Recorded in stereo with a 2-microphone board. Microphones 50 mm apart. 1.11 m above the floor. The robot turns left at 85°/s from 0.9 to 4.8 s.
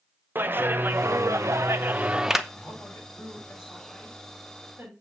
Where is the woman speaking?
150° left, 6 m; by 4.9 s 45° right, 6 m.